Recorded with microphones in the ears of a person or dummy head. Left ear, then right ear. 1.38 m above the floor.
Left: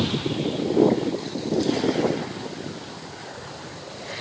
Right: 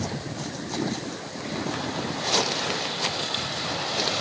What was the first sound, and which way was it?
Only background noise.